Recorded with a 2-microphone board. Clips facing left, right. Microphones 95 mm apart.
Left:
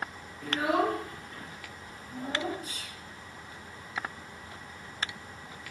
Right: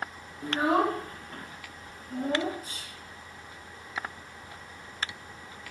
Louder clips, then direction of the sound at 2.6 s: Left 1 dB; 35° right (ahead or behind).